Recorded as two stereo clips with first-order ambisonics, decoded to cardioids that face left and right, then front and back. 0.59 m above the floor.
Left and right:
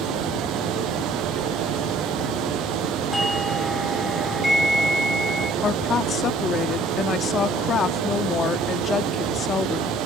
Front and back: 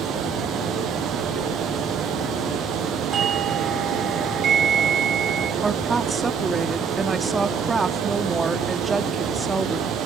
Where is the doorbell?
Straight behind, 1.7 m.